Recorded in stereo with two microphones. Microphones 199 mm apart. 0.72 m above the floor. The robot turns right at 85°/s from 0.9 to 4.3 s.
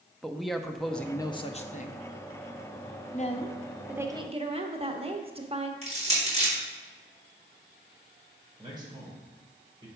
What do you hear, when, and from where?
0.2 s a man speaking: straight ahead, 0.6 m; by 2.0 s 95° left, 0.6 m
3.1 s a woman speaking: 120° left, 0.8 m; by 5.7 s 140° right, 0.8 m
5.8 s crushing: 30° right (ahead or behind), 3.5 m
8.6 s a man speaking: 20° right (ahead or behind), 3 m